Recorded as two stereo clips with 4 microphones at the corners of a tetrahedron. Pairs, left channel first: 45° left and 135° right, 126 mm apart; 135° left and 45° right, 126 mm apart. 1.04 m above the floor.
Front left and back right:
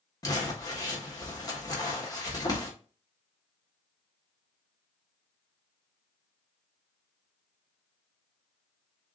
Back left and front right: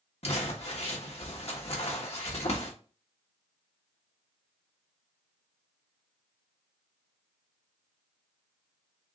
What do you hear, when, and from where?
0.2 s crumpling: 105° left, 1.4 m